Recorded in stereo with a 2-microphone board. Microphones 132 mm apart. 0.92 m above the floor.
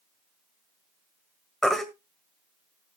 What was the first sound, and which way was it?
A baby crying, 5° left (ahead or behind).